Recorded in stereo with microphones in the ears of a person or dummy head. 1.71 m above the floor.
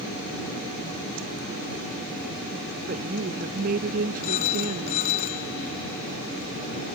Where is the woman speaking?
45° right (ahead or behind); by 5.2 s 50° right (ahead or behind).